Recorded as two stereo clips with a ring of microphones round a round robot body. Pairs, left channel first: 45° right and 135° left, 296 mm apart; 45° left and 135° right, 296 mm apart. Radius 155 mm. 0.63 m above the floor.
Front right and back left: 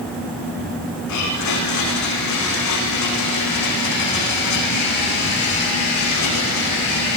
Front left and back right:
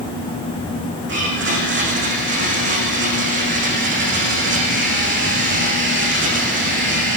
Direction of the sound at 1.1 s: 80° right.